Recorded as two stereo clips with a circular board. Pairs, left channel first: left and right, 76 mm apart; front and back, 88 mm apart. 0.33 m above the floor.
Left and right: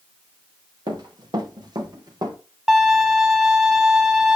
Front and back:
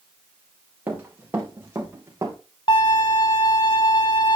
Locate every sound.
0.9 s running footsteps: 115° right, 4.5 m; by 2.4 s 120° right, 5 m
2.7 s a violin: 5° right, 3 m